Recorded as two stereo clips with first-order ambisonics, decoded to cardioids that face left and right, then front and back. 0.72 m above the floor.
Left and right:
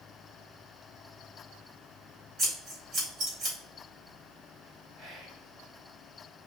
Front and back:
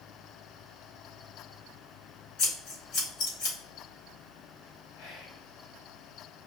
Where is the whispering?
40° right, 2.5 m.